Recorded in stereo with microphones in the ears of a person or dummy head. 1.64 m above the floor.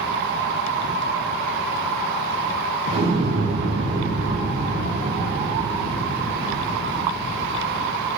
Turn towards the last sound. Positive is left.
turn(degrees=-25)  # may be behind; listen again after turning